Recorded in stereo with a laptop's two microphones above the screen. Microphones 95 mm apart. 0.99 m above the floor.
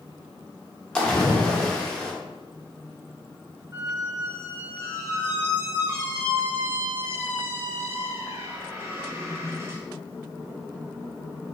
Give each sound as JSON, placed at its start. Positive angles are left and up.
{"t": 0.9, "sound": "a splash", "side_deg": 10, "distance_m": 0.6}
{"t": 3.7, "sound": "a squeak", "side_deg": -30, "distance_m": 0.6}